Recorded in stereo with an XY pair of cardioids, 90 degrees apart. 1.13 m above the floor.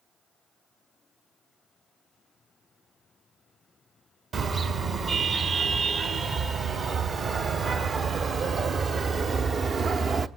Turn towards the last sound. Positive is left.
turn(degrees=-55)